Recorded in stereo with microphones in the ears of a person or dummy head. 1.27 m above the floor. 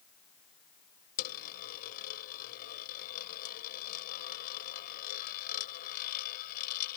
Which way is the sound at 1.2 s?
50° left (ahead or behind).